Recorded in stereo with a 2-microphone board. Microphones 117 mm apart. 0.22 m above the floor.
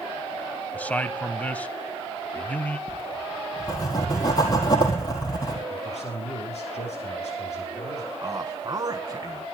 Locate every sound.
0.7 s a man speaking: 15° left (ahead or behind), 1.0 m
2.9 s writing: 35° left (ahead or behind), 4 m
5.7 s a man speaking: 75° left (ahead or behind), 5 m
8.2 s a man speaking: 35° right (ahead or behind), 1.4 m